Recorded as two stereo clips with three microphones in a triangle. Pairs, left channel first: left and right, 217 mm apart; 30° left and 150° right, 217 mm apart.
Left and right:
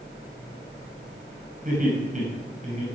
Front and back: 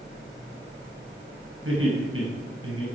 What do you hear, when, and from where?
1.6 s laughter: 140° right, 6.5 m; by 2.9 s 150° right, 7 m